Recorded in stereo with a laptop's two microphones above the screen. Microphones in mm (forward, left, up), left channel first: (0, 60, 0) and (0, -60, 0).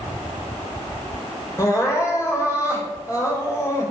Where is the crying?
25° left (ahead or behind), 4 m.